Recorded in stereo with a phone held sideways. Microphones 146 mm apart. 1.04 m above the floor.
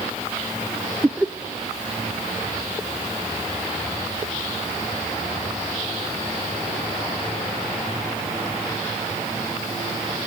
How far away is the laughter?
About 0.6 m.